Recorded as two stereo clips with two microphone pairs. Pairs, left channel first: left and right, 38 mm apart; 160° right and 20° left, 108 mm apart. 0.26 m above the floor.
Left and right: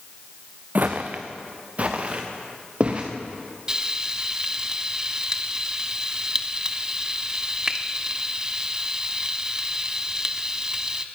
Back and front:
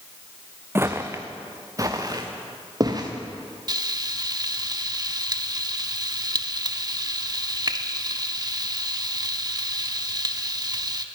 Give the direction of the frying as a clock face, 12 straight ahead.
1 o'clock.